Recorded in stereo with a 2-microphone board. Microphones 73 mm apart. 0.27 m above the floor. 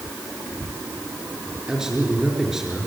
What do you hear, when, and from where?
1.7 s a man speaking: 5° right (ahead or behind), 5 m